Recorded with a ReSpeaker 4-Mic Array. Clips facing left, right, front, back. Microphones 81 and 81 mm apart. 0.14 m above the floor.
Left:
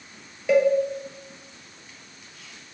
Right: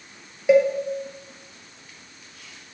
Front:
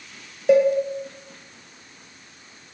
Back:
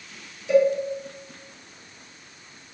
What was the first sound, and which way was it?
A cowbell, 20° right.